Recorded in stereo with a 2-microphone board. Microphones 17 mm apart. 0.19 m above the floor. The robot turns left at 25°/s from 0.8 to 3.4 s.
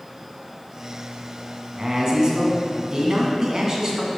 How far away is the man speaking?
About 1.9 m.